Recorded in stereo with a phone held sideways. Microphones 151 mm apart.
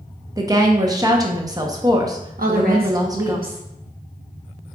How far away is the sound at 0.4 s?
About 0.7 m.